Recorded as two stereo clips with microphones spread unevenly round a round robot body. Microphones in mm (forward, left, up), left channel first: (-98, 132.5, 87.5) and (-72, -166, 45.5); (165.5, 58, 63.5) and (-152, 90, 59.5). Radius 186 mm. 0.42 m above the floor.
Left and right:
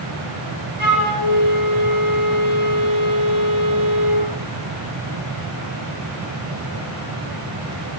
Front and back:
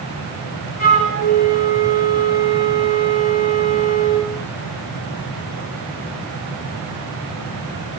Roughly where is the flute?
Ahead right.